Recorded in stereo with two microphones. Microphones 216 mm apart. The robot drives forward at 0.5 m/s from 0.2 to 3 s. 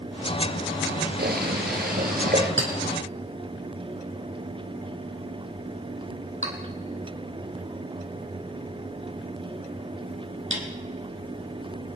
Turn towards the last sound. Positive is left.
turn(degrees=-65)  # may be behind; listen again after turning